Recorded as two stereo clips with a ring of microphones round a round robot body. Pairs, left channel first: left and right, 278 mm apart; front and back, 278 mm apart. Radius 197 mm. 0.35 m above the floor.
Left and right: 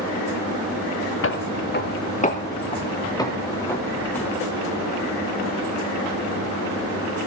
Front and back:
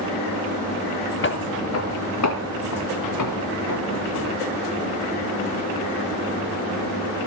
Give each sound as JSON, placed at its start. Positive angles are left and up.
{"t": 1.2, "sound": "footsteps", "azimuth_deg": 50, "distance_m": 2.5}